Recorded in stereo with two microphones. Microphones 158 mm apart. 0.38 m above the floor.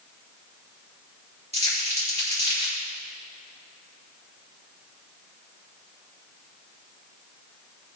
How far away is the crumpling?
About 4 m.